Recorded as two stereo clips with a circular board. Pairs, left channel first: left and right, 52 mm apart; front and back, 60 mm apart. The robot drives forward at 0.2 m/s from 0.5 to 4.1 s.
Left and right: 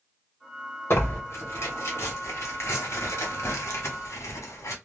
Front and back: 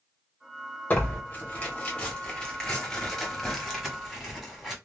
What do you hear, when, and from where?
0.9 s tearing paper: 60° left, 1.1 m; by 4.8 s 95° left, 1.0 m